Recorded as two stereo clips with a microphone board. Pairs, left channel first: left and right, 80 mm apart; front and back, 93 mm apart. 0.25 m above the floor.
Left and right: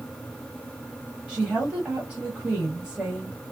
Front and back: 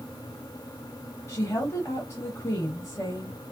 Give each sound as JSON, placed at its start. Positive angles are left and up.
{"t": 1.3, "sound": "a woman speaking", "azimuth_deg": -25, "distance_m": 1.0}